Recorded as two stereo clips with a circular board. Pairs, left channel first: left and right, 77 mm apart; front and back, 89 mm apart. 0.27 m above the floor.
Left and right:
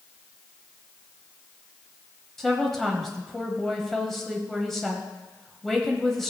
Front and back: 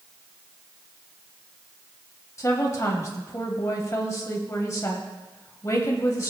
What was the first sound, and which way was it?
A woman speaking, 5° left.